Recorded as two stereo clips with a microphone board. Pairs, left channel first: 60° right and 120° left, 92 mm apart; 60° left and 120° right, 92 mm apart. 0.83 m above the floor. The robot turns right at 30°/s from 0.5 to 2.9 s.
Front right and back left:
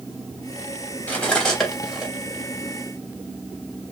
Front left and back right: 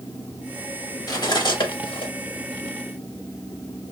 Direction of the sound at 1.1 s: 10° left.